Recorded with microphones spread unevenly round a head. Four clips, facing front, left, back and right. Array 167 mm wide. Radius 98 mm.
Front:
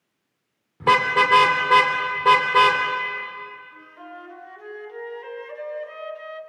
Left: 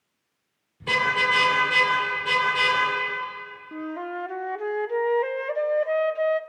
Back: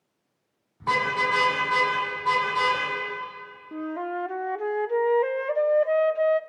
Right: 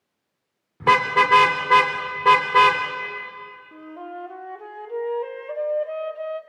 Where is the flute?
120° left, 0.8 m.